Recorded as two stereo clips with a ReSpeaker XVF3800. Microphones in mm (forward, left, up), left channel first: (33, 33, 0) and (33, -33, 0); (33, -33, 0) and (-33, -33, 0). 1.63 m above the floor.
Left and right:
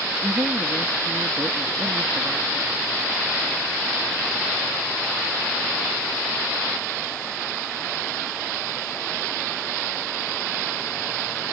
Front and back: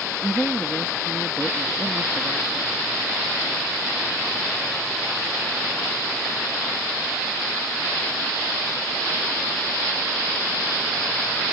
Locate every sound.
0.2 s a woman speaking: 80° right